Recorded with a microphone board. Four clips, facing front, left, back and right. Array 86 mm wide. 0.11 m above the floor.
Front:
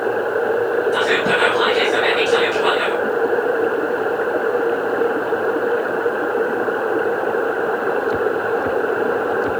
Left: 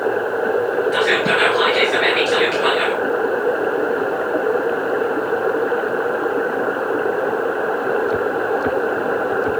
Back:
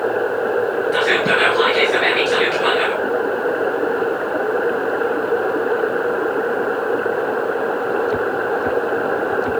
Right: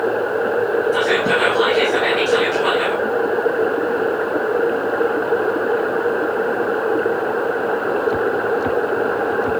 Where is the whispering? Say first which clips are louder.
Even, even; 130° left, 2 m.